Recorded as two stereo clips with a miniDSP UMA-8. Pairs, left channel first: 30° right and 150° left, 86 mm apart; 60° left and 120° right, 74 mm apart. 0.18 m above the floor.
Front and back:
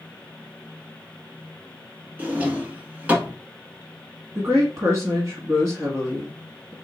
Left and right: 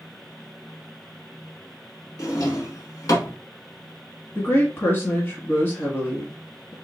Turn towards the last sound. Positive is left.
turn(degrees=110)